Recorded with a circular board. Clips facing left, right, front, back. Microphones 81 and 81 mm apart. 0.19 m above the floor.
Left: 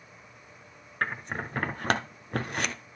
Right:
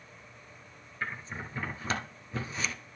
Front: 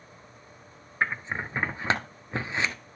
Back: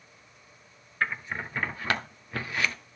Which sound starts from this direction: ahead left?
Scissors, at 1.0 s.